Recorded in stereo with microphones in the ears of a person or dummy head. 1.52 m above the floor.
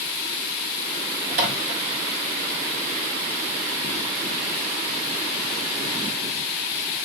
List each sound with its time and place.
1.3 s a microwave: 50° right (ahead or behind), 0.7 m